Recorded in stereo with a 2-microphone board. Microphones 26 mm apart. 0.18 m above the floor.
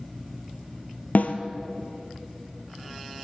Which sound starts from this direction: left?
A snare drum, at 1.1 s.